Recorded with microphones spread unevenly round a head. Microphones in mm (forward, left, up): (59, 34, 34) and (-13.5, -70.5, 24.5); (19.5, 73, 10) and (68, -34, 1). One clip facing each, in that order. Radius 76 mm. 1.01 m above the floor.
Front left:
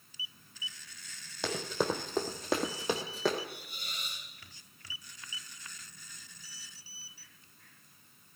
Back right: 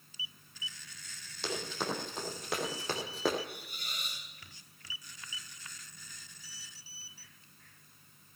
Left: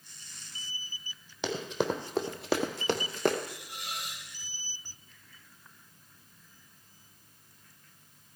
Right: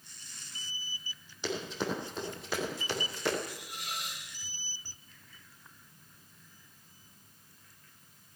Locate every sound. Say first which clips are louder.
1.4 s running footsteps: front left 4 dB, left 4 dB; 100° left, 2.5 m; by 3.4 s 150° left, 1.3 m
3.5 s a hiss: even, even; straight behind, 5 m